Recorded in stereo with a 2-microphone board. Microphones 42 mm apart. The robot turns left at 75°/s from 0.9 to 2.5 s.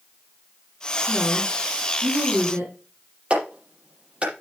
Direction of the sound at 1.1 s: 5° right.